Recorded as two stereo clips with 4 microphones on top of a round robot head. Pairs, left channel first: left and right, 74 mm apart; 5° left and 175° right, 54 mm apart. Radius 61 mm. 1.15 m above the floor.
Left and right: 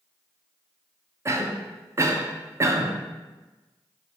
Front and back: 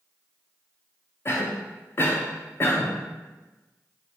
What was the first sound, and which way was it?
A cough, 40° right.